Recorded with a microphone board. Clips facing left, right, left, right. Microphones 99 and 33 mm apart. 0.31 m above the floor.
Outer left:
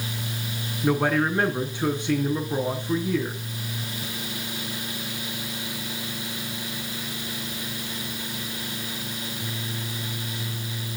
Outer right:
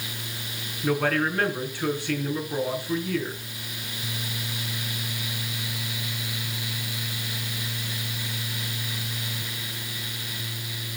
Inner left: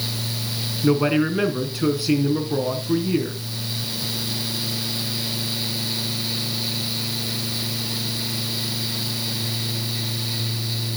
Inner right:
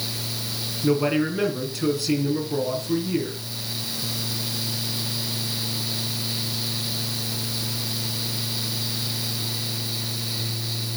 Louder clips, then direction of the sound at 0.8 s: Outer left 2 dB, inner left 2 dB; 20° left (ahead or behind).